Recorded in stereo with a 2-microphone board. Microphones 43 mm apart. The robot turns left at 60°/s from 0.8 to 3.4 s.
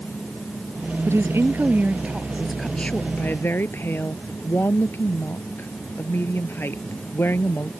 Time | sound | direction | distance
1.1 | a woman speaking | 90° right | ?